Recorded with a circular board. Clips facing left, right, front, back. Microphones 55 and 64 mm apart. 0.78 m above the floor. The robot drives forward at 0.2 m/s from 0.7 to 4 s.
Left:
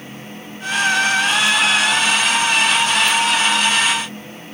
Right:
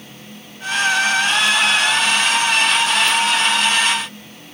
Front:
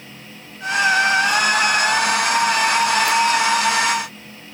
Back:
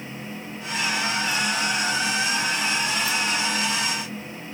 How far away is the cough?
No cough in this recording.